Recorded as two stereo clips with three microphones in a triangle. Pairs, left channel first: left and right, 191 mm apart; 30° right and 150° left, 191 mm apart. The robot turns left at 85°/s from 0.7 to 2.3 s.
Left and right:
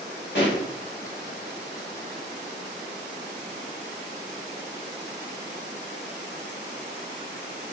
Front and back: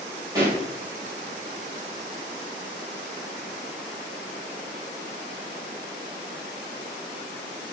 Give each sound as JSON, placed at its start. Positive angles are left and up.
{"t": 0.3, "sound": "a pop", "azimuth_deg": 80, "distance_m": 1.8}